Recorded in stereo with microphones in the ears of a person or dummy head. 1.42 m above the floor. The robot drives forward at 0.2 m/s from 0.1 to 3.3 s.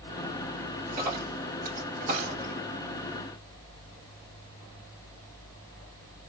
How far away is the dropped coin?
About 2.5 m.